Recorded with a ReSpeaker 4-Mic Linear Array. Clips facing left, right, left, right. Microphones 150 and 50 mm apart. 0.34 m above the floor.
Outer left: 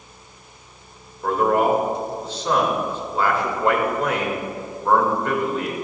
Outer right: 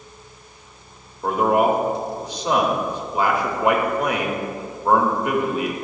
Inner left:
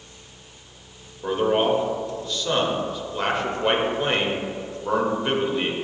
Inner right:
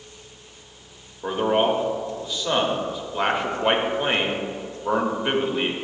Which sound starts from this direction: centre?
A man speaking, at 1.2 s.